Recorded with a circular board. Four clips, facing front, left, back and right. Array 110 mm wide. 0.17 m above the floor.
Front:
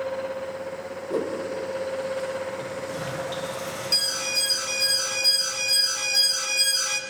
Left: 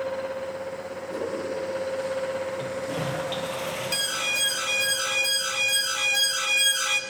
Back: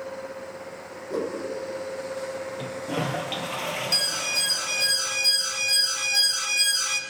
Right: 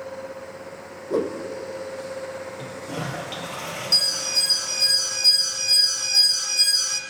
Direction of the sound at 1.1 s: 80° right.